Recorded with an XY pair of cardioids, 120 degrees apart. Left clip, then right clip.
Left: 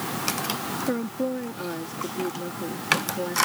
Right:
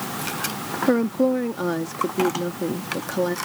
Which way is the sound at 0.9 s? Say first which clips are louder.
Right 10 dB; 45° right.